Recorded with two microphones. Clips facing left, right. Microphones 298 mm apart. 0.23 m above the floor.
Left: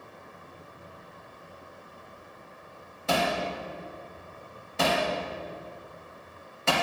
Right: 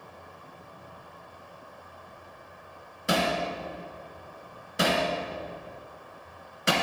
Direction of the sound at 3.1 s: 20° right (ahead or behind).